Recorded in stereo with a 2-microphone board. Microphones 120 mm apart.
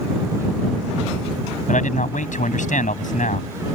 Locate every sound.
1.7 s a man speaking: 90° left